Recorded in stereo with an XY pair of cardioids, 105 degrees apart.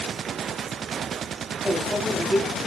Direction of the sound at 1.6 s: Straight ahead.